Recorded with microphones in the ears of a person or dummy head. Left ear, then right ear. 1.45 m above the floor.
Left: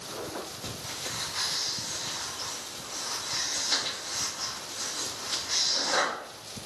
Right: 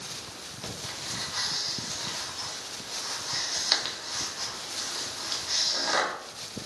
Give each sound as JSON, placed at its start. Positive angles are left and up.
{"t": 0.6, "sound": "breathing", "side_deg": -50, "distance_m": 1.2}